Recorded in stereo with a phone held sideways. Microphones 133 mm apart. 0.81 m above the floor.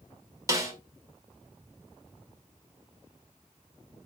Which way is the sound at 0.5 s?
25° right (ahead or behind).